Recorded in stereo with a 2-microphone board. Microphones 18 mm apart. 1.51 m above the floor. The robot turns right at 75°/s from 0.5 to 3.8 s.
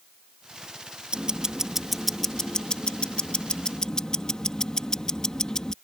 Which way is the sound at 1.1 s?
65° right.